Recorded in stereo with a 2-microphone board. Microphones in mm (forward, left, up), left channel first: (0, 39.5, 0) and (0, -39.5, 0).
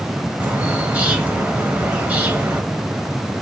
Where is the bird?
20° right (ahead or behind), 0.9 m.